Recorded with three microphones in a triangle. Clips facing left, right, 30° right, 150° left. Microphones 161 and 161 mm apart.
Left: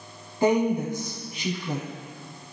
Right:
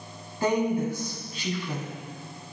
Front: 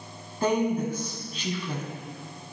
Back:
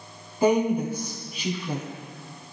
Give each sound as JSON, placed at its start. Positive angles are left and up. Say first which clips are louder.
{"t": 0.4, "sound": "a woman speaking", "louder": "left 3 dB, back 3 dB", "azimuth_deg": 95, "distance_m": 1.0}